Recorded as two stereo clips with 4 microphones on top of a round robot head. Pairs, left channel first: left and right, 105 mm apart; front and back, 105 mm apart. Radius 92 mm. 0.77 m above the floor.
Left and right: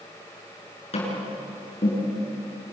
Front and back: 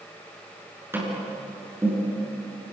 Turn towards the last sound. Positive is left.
turn(degrees=115)